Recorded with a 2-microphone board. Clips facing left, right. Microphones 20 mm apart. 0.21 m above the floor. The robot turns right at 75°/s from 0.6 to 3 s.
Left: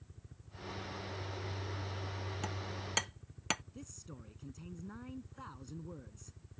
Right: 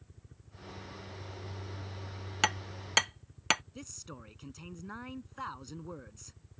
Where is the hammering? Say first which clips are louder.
Right 10 dB; 70° right (ahead or behind); by 3.6 s 30° right (ahead or behind).